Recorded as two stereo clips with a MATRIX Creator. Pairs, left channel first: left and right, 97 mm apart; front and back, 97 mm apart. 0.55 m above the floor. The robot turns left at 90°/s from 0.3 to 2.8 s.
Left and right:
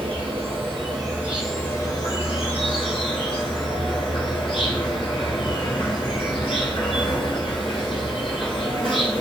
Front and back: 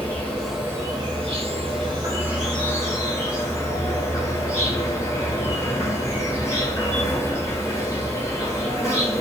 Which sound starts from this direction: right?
An insect, at 0.0 s.